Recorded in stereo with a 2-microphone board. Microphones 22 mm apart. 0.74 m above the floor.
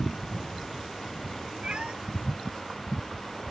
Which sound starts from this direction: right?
A cat meowing, at 1.6 s.